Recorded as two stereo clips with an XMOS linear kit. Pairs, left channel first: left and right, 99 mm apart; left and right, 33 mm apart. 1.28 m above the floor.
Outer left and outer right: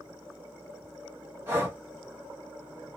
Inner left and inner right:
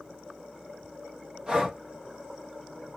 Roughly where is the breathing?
Right.